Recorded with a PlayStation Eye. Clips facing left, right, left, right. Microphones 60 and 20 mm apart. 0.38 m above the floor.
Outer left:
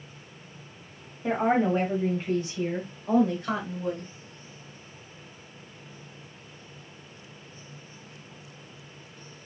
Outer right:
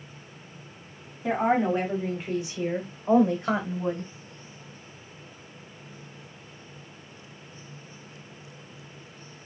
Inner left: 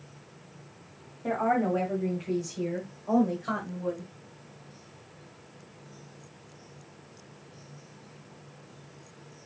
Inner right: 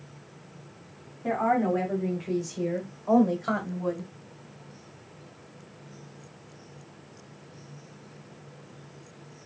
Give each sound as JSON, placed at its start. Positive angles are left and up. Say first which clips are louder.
{"t": 1.2, "sound": "a woman speaking", "louder": "even, inner right 2 dB", "side_deg": 0, "distance_m": 2.0}